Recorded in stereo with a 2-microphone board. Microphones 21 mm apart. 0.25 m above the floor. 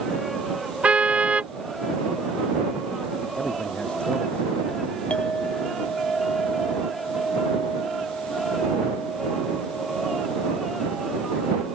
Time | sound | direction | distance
0.8 | a car horn | 80° right | ?
3.4 | a man speaking | 60° left (ahead or behind) | ?
5.1 | a clink | 65° left (ahead or behind) | ?